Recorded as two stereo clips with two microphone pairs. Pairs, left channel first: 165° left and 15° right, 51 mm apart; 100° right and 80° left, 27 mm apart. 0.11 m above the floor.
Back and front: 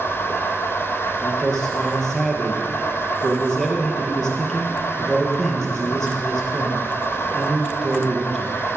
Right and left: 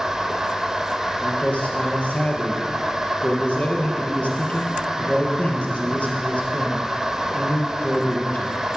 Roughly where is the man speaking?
Behind right.